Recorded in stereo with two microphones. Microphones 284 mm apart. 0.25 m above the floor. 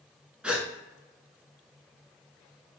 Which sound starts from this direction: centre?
A gasp, at 0.4 s.